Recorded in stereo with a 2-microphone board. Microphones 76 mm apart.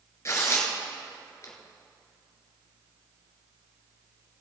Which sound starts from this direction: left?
Tearing paper, at 0.2 s.